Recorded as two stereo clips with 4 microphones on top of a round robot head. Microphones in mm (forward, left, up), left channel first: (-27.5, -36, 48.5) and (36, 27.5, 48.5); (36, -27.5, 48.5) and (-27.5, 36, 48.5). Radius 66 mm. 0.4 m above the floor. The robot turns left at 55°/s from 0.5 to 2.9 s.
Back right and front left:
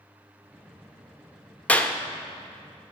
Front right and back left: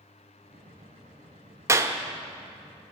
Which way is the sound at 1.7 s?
165° left.